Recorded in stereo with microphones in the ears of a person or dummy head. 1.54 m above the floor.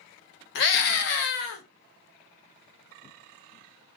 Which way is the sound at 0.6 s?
60° left (ahead or behind).